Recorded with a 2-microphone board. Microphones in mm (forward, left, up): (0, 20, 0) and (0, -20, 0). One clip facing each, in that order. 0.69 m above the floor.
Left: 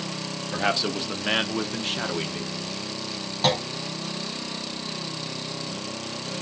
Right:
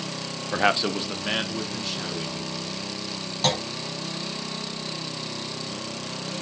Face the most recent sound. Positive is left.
turn(degrees=10)  # may be behind; listen again after turning